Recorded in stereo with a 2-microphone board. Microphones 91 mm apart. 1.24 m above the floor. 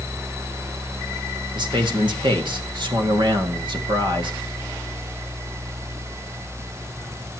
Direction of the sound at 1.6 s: 60° right (ahead or behind).